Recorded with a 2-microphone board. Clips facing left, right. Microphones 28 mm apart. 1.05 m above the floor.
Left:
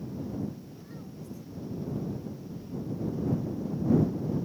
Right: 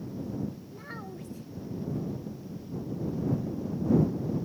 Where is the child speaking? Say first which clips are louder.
Right 3 dB; 75° right (ahead or behind).